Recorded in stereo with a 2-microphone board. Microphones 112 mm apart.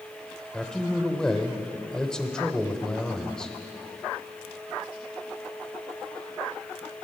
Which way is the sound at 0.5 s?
5° left (ahead or behind).